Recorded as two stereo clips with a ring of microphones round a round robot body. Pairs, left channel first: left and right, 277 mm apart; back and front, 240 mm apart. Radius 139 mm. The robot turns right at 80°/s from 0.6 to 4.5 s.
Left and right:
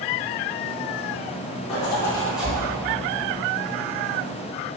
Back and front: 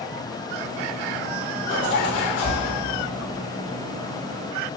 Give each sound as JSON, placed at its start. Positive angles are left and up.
{"t": 1.7, "sound": "a zipper", "azimuth_deg": 125, "distance_m": 1.1}